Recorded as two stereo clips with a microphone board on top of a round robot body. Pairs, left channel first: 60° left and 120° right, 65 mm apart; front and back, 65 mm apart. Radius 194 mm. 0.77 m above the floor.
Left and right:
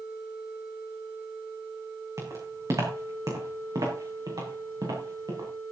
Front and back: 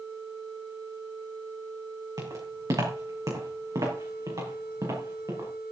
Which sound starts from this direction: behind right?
Footsteps, at 2.2 s.